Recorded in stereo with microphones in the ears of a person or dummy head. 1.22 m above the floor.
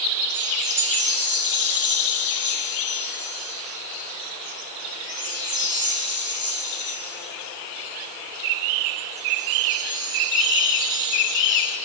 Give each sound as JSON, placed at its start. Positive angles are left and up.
{"t": 0.3, "sound": "a chime", "side_deg": -40, "distance_m": 4.0}